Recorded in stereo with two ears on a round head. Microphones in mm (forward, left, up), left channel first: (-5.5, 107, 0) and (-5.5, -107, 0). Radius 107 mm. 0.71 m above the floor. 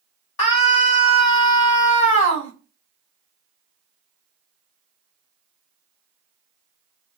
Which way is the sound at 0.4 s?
60° left (ahead or behind).